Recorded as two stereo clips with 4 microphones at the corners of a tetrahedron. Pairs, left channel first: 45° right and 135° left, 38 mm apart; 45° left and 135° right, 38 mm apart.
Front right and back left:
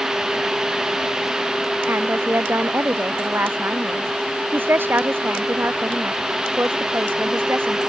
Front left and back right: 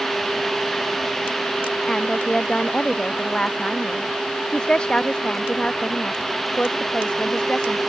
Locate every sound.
1.9 s a woman speaking: 120° left; by 7.8 s 110° left